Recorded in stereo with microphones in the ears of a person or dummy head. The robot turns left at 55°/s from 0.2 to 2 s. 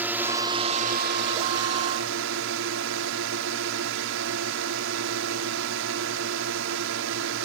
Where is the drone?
10° right; by 7.5 s 110° right.